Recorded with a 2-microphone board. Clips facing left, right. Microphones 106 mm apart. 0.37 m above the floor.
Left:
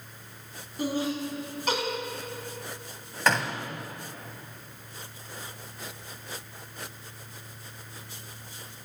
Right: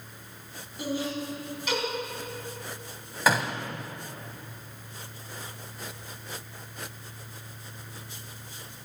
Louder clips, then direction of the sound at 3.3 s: Right 1 dB; 5° right (ahead or behind).